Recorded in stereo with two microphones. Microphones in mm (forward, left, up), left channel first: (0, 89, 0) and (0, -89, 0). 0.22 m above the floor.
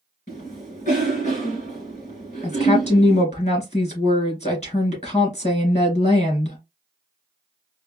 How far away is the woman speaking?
About 3 m.